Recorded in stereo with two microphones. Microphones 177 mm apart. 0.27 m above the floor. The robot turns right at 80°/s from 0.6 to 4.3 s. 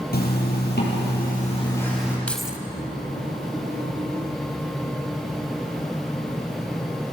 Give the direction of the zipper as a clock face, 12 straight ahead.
10 o'clock.